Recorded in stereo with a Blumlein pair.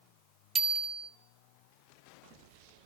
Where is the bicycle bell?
20° right, 2 m.